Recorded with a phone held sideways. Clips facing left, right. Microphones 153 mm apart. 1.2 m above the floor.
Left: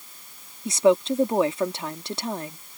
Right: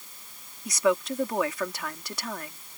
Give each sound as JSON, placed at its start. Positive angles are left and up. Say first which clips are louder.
{"t": 0.7, "sound": "a woman speaking", "louder": "left 6 dB", "side_deg": 25}